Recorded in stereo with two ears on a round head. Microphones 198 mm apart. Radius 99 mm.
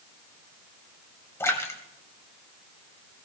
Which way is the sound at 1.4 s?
10° left (ahead or behind).